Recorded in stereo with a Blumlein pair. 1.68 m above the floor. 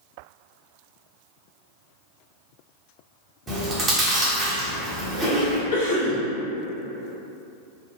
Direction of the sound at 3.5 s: 20° right.